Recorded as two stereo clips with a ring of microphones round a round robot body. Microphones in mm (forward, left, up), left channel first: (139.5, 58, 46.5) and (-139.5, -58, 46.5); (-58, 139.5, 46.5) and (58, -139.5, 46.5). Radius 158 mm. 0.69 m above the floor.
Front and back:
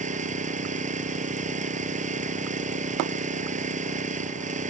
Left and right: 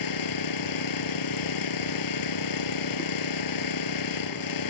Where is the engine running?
135° left.